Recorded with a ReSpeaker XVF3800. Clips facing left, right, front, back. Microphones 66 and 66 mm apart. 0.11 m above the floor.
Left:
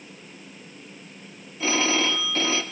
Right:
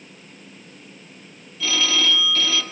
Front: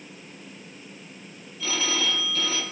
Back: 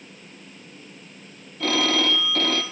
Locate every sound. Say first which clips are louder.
1.6 s a phone ringing: even, back 6 dB; 150° left, 1.7 m